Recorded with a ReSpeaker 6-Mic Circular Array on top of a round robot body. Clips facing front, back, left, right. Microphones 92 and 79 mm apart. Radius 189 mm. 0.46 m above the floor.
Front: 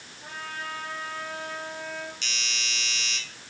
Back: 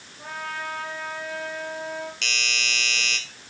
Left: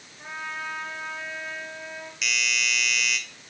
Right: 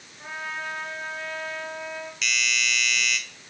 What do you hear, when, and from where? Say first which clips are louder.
0.2 s a trumpet: back 5 dB, right 1 dB; straight behind, 8 m
2.2 s a doorbell: back 6 dB, even; 175° left, 4 m